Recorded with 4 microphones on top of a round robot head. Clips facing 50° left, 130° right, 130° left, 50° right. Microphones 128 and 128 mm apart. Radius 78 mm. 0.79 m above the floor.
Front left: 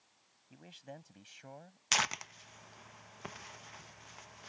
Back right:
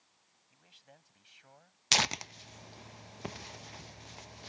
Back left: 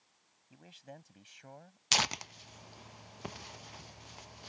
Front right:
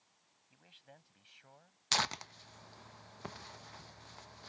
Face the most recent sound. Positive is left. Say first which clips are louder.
# back right 3 dB, back left 2 dB
turn(degrees=-160)